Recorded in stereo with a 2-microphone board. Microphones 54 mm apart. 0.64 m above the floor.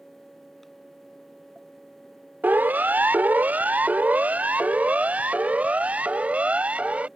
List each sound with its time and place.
2.4 s a siren: 30° right (ahead or behind); by 7.1 s 20° right (ahead or behind)